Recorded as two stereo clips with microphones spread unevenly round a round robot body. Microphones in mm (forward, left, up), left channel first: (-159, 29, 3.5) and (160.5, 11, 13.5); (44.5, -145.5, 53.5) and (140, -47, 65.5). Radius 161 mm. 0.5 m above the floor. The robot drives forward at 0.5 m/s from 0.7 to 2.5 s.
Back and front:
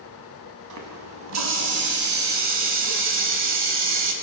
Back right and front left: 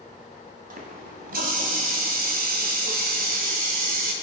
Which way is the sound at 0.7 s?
35° left.